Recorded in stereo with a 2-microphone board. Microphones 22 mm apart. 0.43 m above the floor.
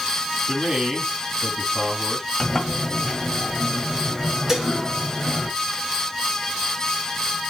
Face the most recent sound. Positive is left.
turn(degrees=-25)  # may be behind; listen again after turning